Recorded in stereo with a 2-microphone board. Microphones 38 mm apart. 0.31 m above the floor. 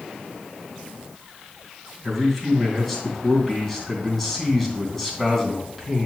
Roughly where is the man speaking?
Centre.